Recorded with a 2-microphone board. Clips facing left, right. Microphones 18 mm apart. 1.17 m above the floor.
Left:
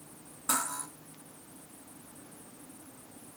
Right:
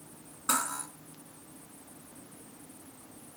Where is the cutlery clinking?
35° right (ahead or behind), 2.5 m.